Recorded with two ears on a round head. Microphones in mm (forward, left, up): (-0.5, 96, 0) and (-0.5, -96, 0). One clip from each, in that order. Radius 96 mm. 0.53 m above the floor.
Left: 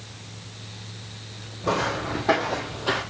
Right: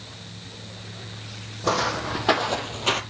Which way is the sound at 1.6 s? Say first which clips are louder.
Right 1 dB; 70° right (ahead or behind).